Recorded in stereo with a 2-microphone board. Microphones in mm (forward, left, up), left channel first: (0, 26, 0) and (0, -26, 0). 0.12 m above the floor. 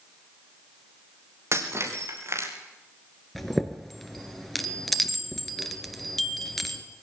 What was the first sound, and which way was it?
Breaking glass, 55° right (ahead or behind).